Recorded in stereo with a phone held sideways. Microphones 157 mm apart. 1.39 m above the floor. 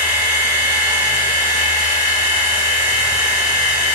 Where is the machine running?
15° right (ahead or behind), 1.0 m.